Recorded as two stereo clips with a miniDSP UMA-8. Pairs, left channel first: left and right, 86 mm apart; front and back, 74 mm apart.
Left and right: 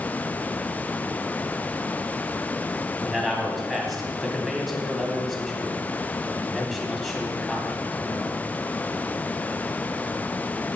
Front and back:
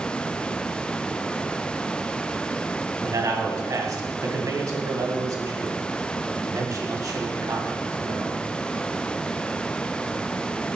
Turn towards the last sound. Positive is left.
turn(degrees=180)